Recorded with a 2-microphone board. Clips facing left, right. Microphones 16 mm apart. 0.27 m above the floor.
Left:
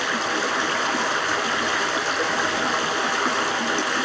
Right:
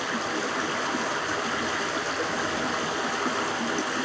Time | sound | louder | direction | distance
0.0 | running water | left 5 dB | 25° left (ahead or behind) | 1.2 m